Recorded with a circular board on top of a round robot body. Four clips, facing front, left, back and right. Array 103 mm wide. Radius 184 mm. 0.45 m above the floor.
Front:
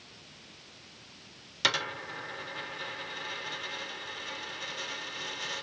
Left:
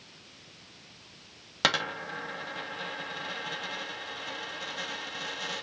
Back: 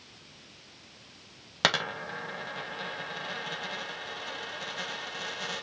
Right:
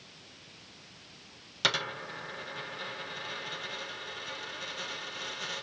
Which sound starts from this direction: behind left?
A dropped coin, at 1.6 s.